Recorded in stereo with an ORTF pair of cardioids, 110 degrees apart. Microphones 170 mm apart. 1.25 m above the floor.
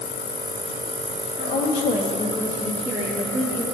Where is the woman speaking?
65° left, 2.5 m; by 3.6 s 40° right, 2.5 m.